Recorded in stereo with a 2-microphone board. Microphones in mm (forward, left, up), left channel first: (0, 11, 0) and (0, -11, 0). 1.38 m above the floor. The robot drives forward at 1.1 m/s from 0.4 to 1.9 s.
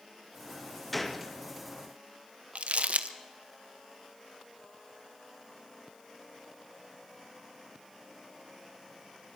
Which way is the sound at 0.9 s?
5° left (ahead or behind).